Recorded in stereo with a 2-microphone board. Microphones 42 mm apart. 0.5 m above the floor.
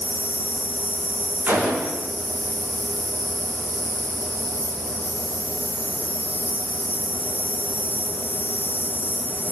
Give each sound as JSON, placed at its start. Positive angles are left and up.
{"t": 0.0, "sound": "an insect", "side_deg": 60, "distance_m": 1.5}
{"t": 1.5, "sound": "a gunshot", "side_deg": -45, "distance_m": 10.0}